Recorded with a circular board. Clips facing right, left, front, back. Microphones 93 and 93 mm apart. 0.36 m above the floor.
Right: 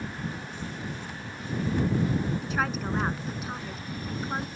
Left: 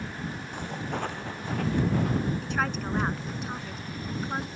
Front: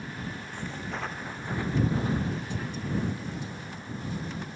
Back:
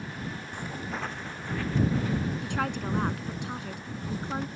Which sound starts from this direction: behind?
A woman speaking, at 2.4 s.